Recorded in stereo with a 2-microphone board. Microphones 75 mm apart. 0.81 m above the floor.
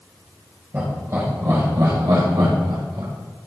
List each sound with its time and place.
0.7 s laughter: 25° right (ahead or behind), 3 m; by 3.1 s 80° right, 3.5 m